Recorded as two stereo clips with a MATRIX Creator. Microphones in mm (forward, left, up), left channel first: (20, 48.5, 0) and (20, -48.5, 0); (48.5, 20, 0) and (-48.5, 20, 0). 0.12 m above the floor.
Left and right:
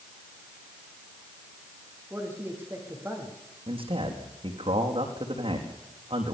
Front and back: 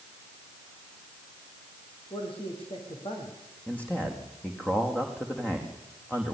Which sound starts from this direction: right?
A man speaking, at 3.7 s.